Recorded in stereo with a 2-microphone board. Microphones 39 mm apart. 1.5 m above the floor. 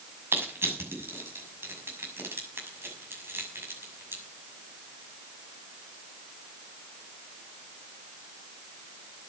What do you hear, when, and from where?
0.3 s crushing: 80° right, 6.5 m